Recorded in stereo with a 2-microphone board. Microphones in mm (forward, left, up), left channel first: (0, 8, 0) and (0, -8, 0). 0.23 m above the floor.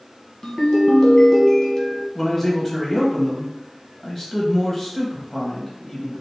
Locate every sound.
0.4 s a ringtone: 50° left (ahead or behind), 1.2 m
2.1 s a man speaking: 20° left (ahead or behind), 1.0 m